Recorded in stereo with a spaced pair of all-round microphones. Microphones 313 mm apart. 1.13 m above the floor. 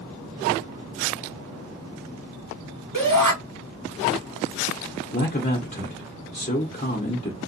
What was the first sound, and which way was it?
A shout, 75° right (ahead or behind).